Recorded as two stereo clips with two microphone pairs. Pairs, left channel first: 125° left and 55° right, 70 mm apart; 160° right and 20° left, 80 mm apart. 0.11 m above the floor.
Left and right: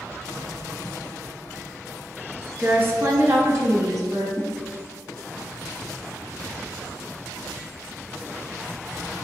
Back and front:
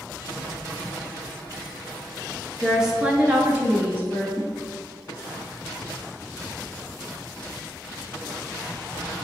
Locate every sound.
2.6 s a woman speaking: 75° right, 1.2 m; by 4.3 s 35° right, 2.5 m
4.4 s a whoosh: 160° left, 0.7 m